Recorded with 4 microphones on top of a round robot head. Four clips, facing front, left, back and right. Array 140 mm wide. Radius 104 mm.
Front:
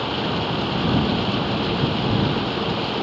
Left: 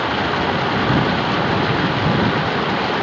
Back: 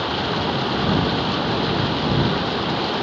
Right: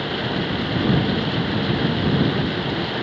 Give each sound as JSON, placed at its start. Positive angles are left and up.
{"t": 0.0, "sound": "running water", "azimuth_deg": 95}